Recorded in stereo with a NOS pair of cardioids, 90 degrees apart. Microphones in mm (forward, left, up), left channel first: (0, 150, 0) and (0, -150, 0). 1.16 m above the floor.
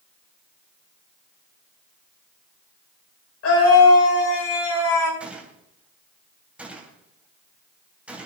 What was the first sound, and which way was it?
A scream, 50° left.